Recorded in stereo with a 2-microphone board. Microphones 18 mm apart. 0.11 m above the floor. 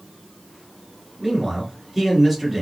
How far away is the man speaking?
About 1.6 m.